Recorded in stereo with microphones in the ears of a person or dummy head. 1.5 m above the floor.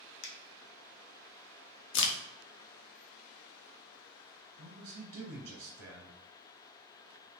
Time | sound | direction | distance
0.2 | a finger snap | 60° left (ahead or behind) | 0.6 m
1.9 | a crack | 65° left (ahead or behind) | 0.6 m
4.6 | a man speaking | 65° right (ahead or behind) | 0.9 m